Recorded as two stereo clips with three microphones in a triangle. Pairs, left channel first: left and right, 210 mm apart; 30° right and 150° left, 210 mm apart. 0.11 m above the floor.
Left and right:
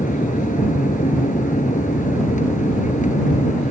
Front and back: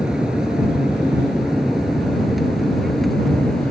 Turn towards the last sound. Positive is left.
turn(degrees=60)